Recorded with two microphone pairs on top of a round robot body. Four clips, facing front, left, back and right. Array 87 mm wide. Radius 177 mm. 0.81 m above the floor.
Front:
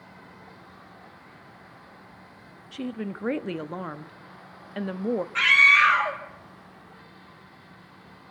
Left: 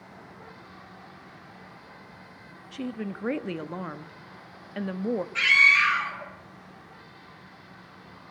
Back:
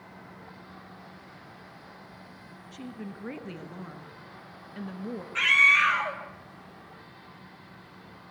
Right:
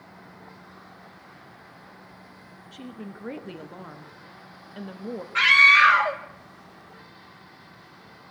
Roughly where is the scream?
Right.